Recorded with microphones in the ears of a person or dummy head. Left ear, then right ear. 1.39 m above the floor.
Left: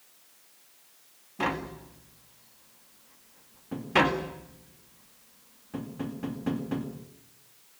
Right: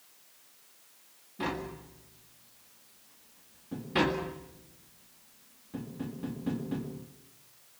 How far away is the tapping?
About 2.0 m.